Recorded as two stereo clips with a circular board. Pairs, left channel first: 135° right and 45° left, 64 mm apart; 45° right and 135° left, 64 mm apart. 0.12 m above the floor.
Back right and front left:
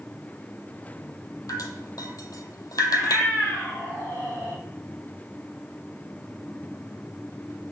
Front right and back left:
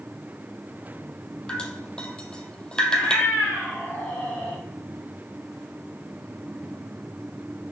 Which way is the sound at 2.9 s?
100° right.